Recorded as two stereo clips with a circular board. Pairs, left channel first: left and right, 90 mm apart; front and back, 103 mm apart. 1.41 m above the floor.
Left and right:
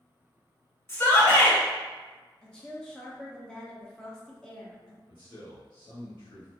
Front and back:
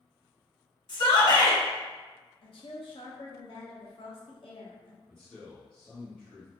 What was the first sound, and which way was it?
A shout, 30° left.